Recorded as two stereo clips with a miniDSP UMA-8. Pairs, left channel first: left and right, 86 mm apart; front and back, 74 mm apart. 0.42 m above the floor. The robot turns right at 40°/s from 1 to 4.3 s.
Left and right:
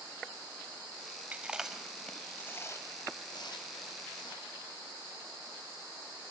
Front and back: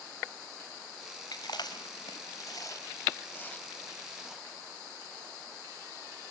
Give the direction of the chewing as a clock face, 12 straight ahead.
1 o'clock.